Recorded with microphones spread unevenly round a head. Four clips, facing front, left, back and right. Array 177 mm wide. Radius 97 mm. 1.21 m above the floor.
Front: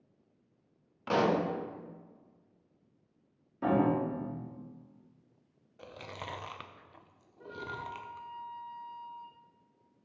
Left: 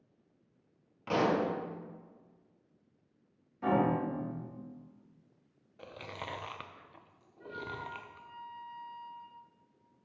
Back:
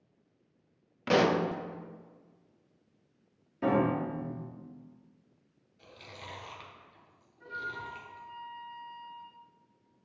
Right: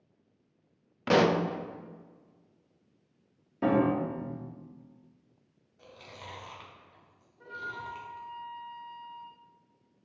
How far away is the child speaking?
No child speaking in this recording.